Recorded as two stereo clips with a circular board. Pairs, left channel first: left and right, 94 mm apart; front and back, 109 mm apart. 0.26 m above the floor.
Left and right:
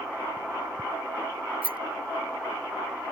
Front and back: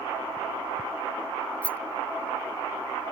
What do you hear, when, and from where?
1.6 s a rattle: 80° right